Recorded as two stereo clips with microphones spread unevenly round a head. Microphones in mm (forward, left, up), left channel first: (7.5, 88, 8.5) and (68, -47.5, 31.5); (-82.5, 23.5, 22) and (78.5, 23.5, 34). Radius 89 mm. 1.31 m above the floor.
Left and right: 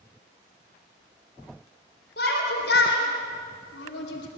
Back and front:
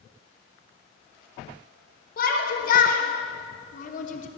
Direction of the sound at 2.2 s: 145° left.